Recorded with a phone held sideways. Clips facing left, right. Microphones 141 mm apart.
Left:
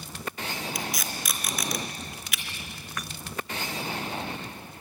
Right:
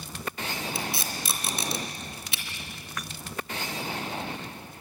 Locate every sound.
0.8 s tape being pulled: 30° right (ahead or behind), 3 m